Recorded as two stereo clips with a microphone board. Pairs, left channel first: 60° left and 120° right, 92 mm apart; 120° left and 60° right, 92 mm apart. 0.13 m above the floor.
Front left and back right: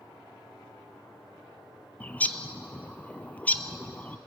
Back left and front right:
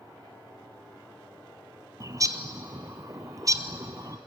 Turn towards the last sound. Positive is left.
turn(degrees=-10)